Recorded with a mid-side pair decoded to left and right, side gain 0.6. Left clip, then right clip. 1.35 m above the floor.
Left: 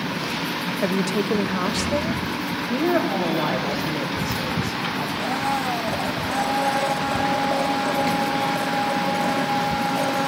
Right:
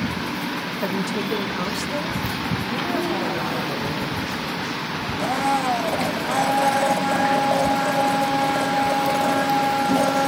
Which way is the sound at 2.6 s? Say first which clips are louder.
Left 5 dB; 40° left.